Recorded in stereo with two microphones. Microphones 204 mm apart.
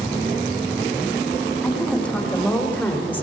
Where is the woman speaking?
5° left (ahead or behind), 10 m; by 3.2 s 10° left (ahead or behind), 10.5 m.